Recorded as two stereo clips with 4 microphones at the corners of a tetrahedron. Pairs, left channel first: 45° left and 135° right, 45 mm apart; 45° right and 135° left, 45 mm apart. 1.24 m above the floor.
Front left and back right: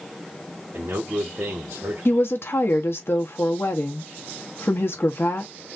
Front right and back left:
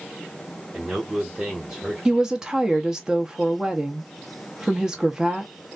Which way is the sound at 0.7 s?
150° right.